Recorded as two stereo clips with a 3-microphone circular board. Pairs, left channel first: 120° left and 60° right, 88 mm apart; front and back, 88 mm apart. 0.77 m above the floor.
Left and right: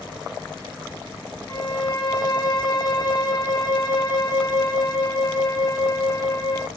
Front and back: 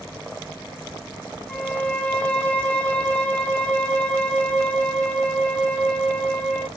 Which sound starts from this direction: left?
A violin, at 1.5 s.